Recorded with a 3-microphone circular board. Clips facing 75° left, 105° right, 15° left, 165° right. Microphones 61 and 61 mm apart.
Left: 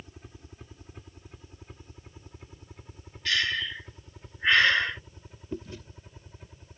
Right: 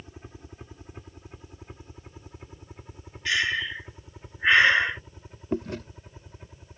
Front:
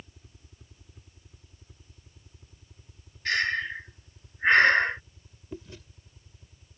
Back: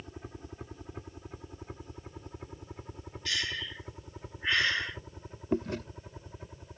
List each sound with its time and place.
0.0 s a helicopter: 170° right; by 6.8 s 175° left
3.2 s breathing: 35° right
5.5 s chewing: 135° right